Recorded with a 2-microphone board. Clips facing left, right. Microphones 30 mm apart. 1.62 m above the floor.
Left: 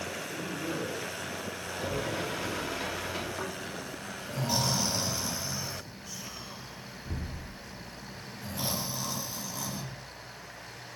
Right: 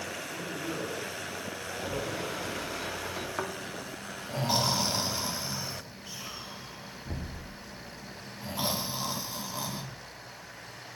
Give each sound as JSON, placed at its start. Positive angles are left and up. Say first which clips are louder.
{"t": 0.2, "sound": "a man speaking", "louder": "left 1 dB", "side_deg": 0, "distance_m": 3.0}
{"t": 1.6, "sound": "a sliding door", "louder": "left 1 dB", "side_deg": 50, "distance_m": 3.5}
{"t": 3.4, "sound": "snoring", "louder": "right 1 dB", "side_deg": -30, "distance_m": 1.5}